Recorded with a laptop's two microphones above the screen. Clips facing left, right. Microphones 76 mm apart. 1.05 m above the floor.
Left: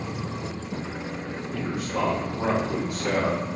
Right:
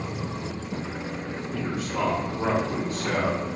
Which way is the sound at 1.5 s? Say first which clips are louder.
Left 1 dB; 35° left (ahead or behind).